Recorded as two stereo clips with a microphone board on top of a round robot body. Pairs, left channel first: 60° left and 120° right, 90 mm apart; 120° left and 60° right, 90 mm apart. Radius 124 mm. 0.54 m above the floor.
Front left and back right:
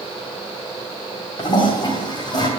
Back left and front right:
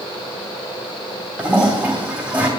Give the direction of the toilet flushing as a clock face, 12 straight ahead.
11 o'clock.